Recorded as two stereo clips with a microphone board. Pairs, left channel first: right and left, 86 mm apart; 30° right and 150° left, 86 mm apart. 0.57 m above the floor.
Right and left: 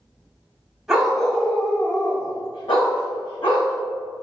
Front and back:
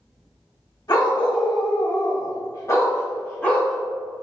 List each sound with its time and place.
0.9 s a dog barking: 5° left, 1.2 m; by 3.8 s 110° right, 1.5 m